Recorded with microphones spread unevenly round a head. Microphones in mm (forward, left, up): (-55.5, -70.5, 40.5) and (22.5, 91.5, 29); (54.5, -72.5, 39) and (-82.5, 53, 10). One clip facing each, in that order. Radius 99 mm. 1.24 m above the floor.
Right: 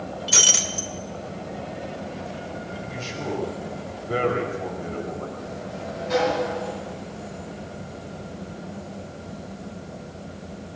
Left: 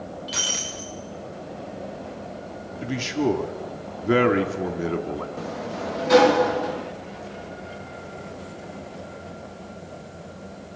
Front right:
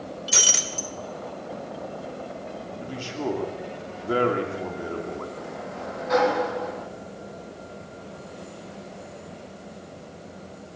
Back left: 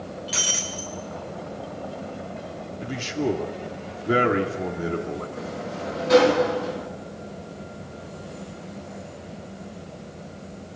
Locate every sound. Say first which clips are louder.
0.3 s breaking glass: right 4 dB, even; 75° right, 2 m
2.8 s a man speaking: left 12 dB, back left 5 dB; 70° left, 3 m
5.4 s a sliding door: left 3 dB, back left 3 dB; 85° left, 1.5 m